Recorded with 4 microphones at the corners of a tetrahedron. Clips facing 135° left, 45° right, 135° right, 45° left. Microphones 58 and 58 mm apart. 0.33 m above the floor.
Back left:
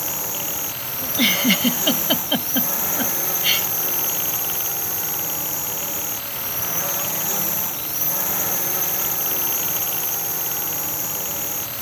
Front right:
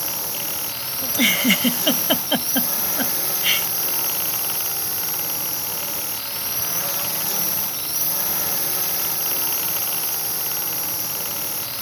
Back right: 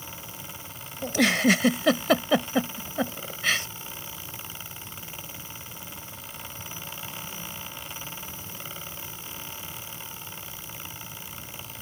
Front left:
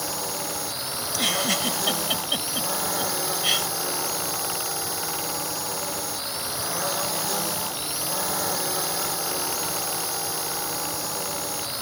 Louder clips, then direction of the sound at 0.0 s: Back left 1 dB, front left 11 dB; 55° left.